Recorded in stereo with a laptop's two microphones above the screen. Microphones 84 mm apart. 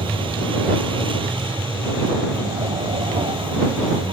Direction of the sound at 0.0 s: 85° right.